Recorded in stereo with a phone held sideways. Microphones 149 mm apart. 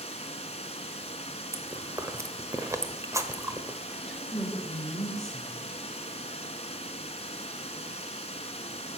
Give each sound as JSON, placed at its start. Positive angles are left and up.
{"t": 0.0, "sound": "running water", "side_deg": 45, "distance_m": 1.4}
{"t": 1.5, "sound": "chewing", "side_deg": -20, "distance_m": 1.1}
{"t": 3.9, "sound": "a woman speaking", "side_deg": 5, "distance_m": 4.5}